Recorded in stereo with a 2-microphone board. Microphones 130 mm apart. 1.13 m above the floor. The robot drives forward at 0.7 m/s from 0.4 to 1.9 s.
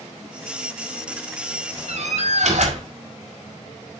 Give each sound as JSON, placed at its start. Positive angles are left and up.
{"t": 1.9, "sound": "a door slam", "side_deg": -65, "distance_m": 4.5}